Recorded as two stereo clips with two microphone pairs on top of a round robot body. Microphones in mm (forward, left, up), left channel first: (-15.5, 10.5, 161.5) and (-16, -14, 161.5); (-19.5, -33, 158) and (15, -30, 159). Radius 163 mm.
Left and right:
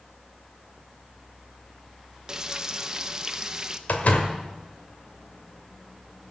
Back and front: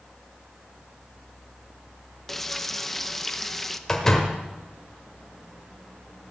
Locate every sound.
2.3 s frying: 105° right, 1.1 m
3.9 s a door slam: 110° left, 1.8 m